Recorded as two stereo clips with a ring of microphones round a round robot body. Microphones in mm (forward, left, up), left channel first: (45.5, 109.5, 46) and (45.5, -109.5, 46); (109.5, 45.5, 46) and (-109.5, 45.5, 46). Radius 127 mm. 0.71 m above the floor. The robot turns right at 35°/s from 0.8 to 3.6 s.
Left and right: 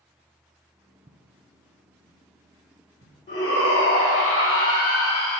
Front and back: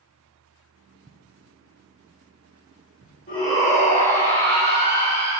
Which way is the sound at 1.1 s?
135° right.